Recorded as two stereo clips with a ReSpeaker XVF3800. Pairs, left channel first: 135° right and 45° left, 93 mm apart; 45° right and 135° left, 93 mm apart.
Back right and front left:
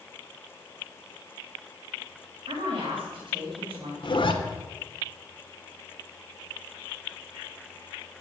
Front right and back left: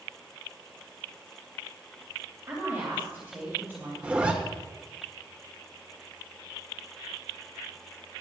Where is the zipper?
150° right, 1.3 m.